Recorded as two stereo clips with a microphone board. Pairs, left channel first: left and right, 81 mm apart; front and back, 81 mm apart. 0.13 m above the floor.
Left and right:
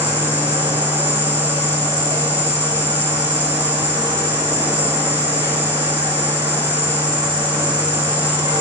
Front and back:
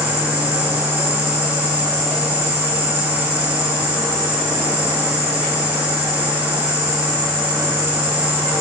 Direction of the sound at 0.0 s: 115° right.